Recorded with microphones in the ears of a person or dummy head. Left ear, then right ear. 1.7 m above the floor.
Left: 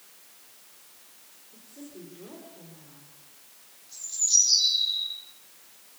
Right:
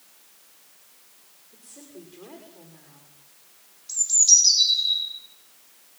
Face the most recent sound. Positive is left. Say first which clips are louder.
# right 7 dB
turn(degrees=-70)  # may be behind; listen again after turning